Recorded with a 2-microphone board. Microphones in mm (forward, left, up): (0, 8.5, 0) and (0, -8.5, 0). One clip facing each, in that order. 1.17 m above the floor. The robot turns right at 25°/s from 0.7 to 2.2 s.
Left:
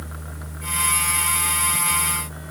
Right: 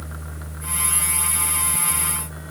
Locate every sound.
Only background noise.